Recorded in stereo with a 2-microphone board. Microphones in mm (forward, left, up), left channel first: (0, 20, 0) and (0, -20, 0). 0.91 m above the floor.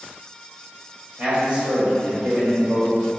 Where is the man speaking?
30° right (ahead or behind), 1.9 m.